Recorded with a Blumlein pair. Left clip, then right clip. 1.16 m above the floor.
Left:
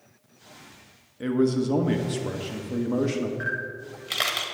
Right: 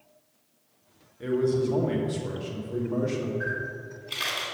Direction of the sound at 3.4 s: 50° left.